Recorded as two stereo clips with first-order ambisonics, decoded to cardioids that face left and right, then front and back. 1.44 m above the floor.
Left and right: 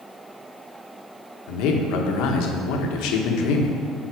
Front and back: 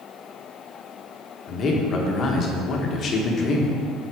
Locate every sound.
1.5 s a man speaking: 60° left, 1.2 m